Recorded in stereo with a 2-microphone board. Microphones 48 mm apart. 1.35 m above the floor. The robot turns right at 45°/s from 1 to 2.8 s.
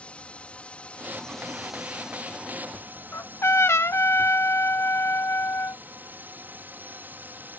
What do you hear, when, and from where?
0.0 s a drone: 150° left; by 7.6 s 130° right
3.1 s a trumpet: 80° left